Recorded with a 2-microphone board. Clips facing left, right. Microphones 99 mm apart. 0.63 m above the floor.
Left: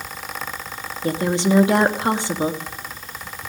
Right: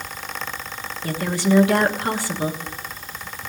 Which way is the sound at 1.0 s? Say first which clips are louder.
Left 2 dB; 20° left (ahead or behind).